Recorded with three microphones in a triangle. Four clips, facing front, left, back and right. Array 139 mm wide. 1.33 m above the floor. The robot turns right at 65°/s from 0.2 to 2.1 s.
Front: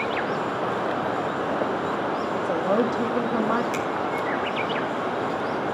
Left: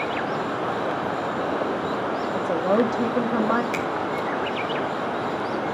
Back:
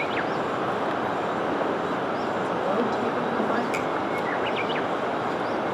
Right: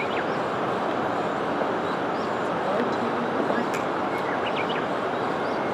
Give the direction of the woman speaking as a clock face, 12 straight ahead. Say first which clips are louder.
Left 8 dB, front 4 dB; 10 o'clock.